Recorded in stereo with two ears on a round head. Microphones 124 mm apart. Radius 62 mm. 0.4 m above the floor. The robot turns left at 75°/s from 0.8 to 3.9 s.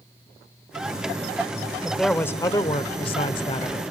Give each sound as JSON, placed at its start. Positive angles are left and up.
{"t": 1.8, "sound": "a man speaking", "azimuth_deg": -175, "distance_m": 1.1}